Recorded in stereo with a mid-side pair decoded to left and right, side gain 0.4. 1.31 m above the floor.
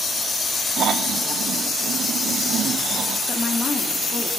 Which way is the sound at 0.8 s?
65° right.